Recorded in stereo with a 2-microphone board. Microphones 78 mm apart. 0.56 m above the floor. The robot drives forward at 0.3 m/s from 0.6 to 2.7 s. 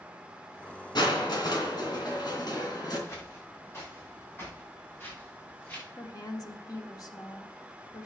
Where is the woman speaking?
50° left (ahead or behind), 1.4 m.